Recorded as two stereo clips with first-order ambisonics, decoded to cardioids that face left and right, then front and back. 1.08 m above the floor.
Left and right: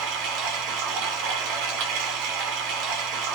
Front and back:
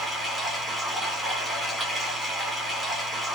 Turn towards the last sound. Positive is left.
turn(degrees=-95)